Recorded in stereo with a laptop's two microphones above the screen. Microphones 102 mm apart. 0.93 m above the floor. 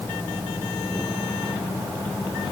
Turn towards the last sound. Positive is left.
No sound to turn to.